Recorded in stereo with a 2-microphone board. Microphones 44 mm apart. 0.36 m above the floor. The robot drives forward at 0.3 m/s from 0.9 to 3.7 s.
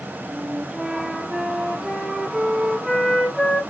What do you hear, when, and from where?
0.3 s a flute: 15° right (ahead or behind), 0.5 m; by 3.6 s 5° right (ahead or behind), 1.3 m